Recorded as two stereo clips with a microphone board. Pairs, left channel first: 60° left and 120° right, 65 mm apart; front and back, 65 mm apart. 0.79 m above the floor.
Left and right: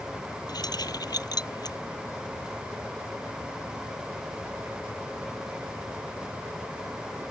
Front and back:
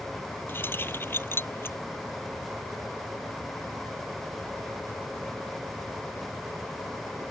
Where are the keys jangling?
55° left.